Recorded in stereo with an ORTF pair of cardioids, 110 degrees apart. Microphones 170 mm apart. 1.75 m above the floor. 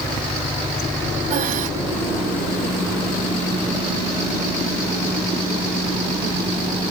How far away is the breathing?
About 1.4 m.